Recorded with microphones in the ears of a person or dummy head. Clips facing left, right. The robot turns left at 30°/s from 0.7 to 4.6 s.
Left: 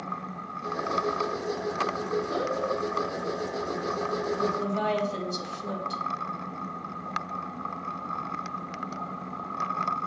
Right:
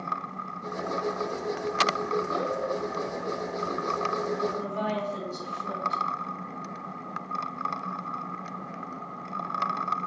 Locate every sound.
4.4 s a woman speaking: 75° left (ahead or behind), 3.5 m; by 6.0 s 65° left (ahead or behind), 3.5 m